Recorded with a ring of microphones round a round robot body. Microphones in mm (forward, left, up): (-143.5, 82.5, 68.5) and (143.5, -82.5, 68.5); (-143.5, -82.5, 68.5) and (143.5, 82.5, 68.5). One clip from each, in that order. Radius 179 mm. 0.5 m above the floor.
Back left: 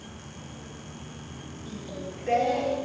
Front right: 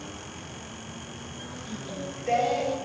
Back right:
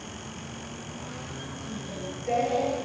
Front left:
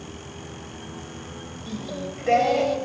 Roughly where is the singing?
Ahead left.